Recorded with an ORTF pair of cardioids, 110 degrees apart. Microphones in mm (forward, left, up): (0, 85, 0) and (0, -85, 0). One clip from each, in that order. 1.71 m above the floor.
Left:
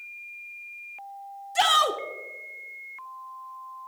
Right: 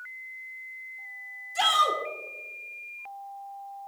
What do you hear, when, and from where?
1.6 s a shout: 35° left, 1.5 m